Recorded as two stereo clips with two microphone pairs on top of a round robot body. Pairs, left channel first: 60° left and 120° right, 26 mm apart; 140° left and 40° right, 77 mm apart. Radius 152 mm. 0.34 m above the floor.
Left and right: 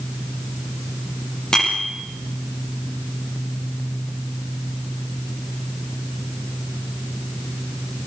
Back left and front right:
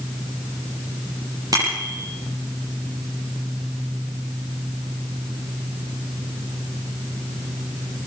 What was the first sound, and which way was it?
A bicycle bell, straight ahead.